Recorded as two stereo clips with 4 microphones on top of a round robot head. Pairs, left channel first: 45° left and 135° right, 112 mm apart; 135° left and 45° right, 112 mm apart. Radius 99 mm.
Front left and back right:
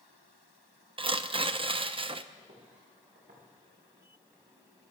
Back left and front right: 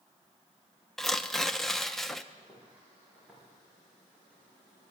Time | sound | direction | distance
1.0 | tearing paper | 140° right | 0.9 m
2.4 | footsteps | 125° right | 8 m